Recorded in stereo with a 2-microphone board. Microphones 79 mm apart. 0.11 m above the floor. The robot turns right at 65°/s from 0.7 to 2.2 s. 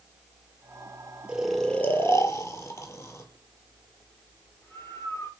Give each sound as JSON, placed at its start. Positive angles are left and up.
{"t": 1.3, "sound": "snoring", "side_deg": -10, "distance_m": 0.8}